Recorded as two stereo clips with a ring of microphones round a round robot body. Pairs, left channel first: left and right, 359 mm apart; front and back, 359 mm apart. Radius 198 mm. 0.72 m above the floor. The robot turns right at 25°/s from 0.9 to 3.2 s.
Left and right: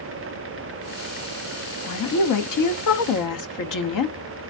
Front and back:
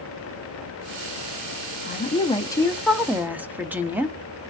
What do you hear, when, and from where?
1.9 s a woman speaking: 60° left, 1.0 m; by 4.2 s 95° left, 1.0 m